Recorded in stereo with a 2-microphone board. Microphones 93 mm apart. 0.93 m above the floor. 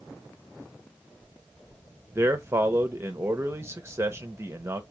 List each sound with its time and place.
2.1 s a man speaking: 30° right (ahead or behind), 0.8 m